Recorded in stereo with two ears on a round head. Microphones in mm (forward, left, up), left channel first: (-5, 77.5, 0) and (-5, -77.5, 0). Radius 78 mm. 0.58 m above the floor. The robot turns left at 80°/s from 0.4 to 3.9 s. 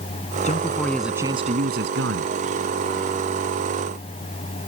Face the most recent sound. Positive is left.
turn(degrees=130)